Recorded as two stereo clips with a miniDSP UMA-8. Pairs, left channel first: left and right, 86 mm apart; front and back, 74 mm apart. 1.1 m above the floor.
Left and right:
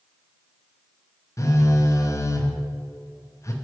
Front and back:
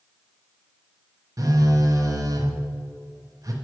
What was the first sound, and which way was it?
A phone buzzing, 140° left.